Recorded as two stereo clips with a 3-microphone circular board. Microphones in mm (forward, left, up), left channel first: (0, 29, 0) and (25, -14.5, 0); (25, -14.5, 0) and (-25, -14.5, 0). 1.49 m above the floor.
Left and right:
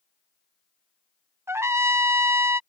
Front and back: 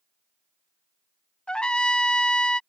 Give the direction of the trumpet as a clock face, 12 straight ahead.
2 o'clock.